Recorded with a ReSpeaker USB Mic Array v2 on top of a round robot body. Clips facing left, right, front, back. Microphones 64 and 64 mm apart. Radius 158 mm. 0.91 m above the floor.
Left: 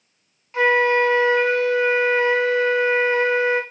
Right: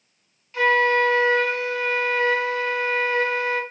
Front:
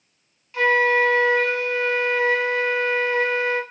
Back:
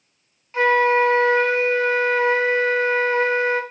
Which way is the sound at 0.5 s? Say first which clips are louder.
Left 2 dB, back 2 dB; 135° left.